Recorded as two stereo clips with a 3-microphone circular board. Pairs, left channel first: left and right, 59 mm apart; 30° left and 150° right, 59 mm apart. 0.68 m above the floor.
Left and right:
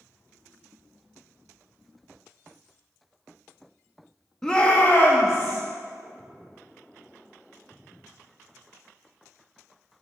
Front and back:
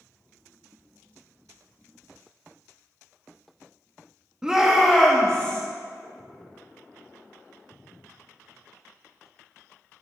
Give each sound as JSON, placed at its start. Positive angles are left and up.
{"t": 4.4, "sound": "a shout", "azimuth_deg": 155, "distance_m": 1.0}